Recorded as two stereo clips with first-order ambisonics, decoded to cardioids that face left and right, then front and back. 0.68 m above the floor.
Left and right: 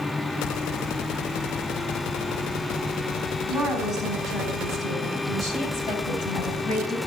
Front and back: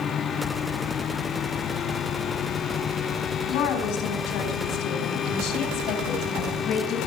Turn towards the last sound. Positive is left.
turn(degrees=45)